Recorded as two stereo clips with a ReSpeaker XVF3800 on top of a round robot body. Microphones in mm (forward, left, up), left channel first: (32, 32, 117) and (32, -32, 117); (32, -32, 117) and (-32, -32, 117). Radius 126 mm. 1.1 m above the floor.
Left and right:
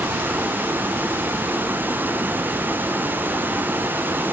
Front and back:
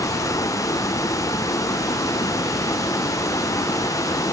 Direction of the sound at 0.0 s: 30° right.